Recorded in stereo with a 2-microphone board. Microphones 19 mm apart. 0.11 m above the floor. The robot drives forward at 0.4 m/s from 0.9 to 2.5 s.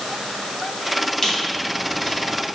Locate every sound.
1.2 s a squeak: 25° left (ahead or behind), 1.7 m; by 2.5 s 20° left (ahead or behind), 2 m